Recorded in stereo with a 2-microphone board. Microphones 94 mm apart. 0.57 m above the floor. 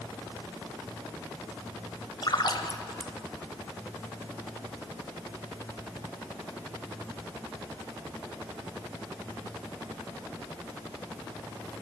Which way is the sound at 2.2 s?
55° left (ahead or behind).